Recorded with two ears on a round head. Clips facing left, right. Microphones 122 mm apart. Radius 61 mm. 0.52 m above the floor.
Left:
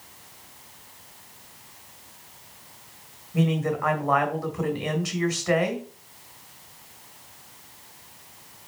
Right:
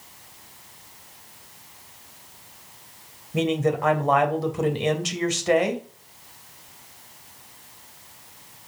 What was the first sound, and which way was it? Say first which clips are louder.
A man speaking: right 2 dB; 30° right (ahead or behind).